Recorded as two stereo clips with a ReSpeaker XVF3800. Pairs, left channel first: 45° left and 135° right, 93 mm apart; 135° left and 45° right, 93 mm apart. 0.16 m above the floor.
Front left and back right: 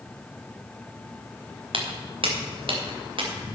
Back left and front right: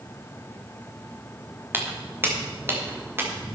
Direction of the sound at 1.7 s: 115° right.